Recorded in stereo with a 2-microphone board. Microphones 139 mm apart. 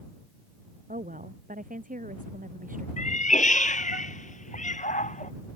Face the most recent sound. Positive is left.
turn(degrees=65)  # may be behind; listen again after turning